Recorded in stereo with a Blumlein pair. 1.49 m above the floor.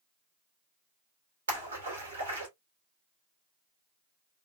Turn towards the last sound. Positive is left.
turn(degrees=-70)